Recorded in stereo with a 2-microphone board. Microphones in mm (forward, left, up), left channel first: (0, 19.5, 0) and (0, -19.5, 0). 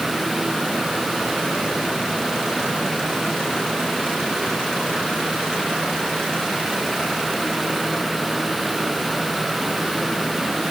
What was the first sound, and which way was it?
Only background noise.